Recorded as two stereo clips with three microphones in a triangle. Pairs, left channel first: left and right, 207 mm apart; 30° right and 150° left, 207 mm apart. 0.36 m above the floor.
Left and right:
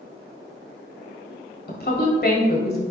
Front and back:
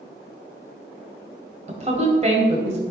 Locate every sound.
1.7 s a woman speaking: 105° left, 1.8 m